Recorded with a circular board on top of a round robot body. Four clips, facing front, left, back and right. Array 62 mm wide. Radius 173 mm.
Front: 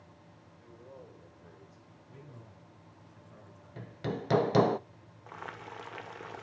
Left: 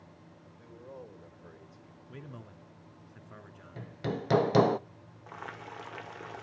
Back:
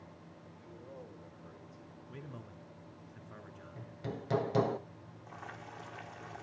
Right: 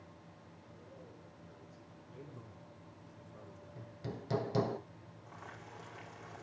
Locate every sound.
0.6 s a man speaking: 75° left, 5 m
2.1 s a man speaking: 115° left, 3.5 m
3.8 s hammering: 55° left, 0.7 m
5.3 s boiling: 40° left, 2 m